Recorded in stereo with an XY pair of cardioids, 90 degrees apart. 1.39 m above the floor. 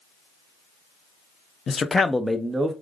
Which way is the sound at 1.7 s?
50° left.